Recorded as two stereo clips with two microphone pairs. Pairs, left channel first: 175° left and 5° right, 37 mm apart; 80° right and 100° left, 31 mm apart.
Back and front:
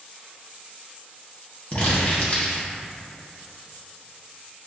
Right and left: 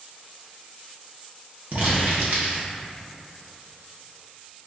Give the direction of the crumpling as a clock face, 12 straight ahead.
8 o'clock.